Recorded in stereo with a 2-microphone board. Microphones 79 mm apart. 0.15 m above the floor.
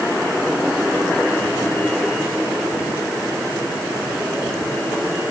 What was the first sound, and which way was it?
Only background noise.